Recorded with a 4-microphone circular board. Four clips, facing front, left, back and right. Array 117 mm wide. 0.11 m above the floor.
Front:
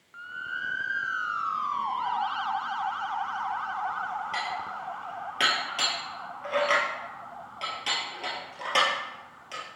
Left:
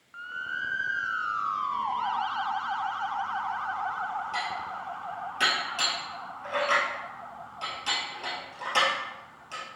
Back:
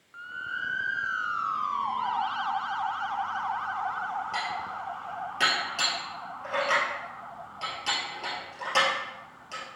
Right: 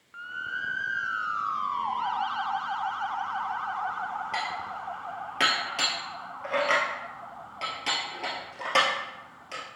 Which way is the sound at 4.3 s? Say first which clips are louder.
Even, even; 70° right.